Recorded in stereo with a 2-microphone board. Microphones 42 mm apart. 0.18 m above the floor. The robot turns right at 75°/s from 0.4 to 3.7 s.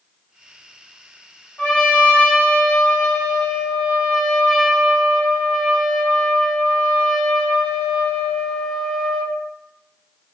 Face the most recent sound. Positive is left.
turn(degrees=-165)